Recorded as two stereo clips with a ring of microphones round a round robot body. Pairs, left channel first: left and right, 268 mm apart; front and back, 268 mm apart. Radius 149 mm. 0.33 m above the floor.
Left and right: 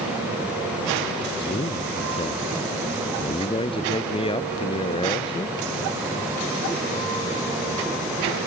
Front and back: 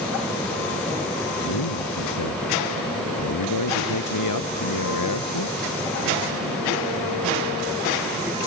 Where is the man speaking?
20° left.